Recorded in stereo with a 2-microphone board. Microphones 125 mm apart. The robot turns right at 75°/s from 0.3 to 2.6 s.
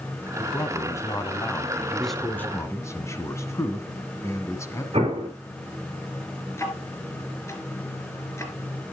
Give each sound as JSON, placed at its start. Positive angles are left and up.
{"t": 0.4, "sound": "a man speaking", "side_deg": 15, "distance_m": 1.6}
{"t": 2.0, "sound": "a man speaking", "azimuth_deg": -5, "distance_m": 1.7}
{"t": 4.9, "sound": "an explosion", "side_deg": -50, "distance_m": 3.0}
{"t": 6.6, "sound": "ticking", "side_deg": 20, "distance_m": 2.5}